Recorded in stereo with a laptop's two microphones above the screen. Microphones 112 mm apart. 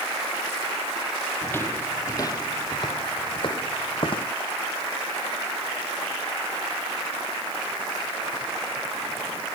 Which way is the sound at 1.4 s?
15° left (ahead or behind).